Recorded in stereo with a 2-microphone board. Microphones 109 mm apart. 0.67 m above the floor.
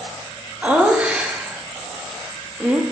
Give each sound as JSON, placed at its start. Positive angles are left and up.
{"t": 0.6, "sound": "laughter", "side_deg": -10, "distance_m": 0.9}